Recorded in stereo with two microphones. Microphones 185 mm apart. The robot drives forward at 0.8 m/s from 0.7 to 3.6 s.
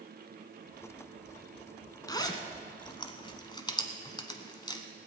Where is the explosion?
I don't hear an explosion.